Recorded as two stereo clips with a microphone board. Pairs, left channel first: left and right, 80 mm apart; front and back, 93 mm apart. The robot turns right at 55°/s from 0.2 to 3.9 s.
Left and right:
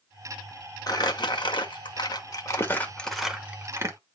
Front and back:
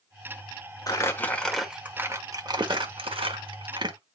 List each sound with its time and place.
0.9 s crumpling: 50° left, 1.2 m; by 4.0 s 140° right, 1.2 m